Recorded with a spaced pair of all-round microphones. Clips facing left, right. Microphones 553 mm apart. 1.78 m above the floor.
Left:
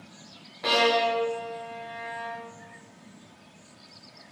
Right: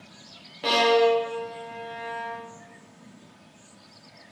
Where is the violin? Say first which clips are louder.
Right 5 dB; 55° right (ahead or behind), 1.8 m.